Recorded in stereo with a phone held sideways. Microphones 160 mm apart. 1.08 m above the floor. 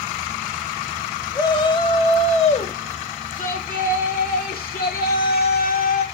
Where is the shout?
25° left (ahead or behind), 1.9 m; by 6.0 s 85° left, 3 m.